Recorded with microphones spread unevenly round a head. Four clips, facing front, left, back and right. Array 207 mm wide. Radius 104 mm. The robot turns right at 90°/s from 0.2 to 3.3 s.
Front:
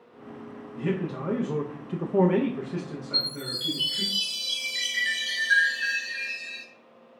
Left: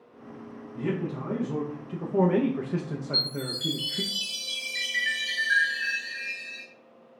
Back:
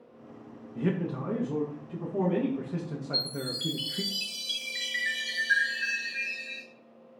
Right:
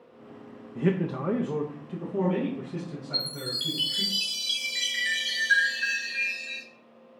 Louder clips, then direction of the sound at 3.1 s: Left 3 dB, back 1 dB; 155° right.